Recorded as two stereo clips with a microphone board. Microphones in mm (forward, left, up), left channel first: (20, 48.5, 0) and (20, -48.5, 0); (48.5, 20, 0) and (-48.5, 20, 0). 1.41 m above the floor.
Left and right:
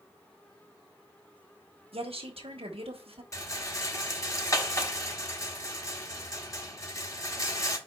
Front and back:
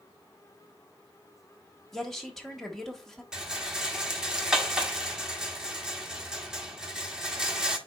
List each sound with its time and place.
1.9 s a woman speaking: 85° right, 1.2 m
3.3 s a rattle: 100° left, 1.1 m